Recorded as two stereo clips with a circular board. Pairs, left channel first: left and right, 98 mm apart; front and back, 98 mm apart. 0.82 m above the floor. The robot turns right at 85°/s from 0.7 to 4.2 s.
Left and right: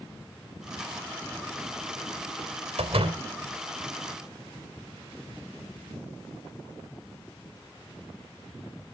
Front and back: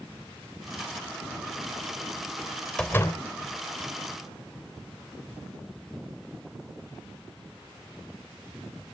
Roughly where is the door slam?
Right.